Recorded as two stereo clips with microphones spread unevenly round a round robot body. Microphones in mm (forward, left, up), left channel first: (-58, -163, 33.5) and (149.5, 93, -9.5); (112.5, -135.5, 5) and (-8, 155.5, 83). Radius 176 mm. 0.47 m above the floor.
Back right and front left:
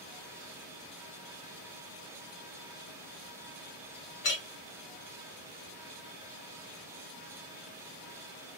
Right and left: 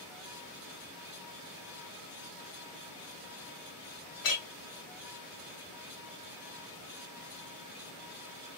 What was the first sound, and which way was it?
A clink, 80° right.